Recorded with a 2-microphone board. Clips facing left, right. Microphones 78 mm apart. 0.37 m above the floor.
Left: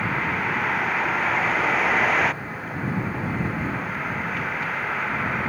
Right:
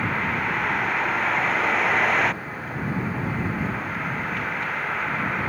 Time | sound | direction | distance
0.0 | a vehicle | centre (ahead or behind) | ?